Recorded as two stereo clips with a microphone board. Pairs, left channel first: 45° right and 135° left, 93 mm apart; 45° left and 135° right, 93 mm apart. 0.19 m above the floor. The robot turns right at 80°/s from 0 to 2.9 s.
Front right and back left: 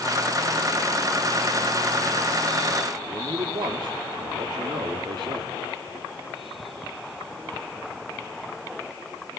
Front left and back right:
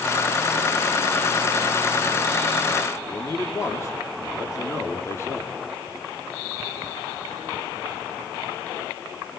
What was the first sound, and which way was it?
A man speaking, 105° left.